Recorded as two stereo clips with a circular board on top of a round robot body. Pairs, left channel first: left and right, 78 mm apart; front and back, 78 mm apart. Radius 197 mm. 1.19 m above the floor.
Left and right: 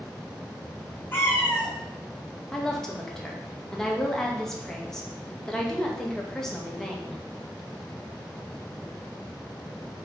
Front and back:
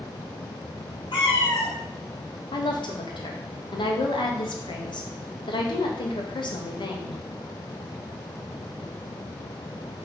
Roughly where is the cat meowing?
Ahead.